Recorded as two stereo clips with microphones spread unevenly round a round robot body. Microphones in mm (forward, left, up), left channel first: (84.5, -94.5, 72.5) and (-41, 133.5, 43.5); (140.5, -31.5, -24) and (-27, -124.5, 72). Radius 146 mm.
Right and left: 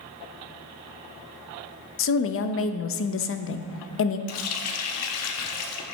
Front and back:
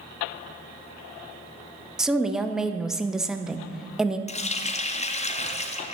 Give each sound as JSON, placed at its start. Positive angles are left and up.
{"t": 2.0, "sound": "a woman speaking", "azimuth_deg": -35, "distance_m": 0.6}
{"t": 4.3, "sound": "a running tap", "azimuth_deg": -30, "distance_m": 0.7}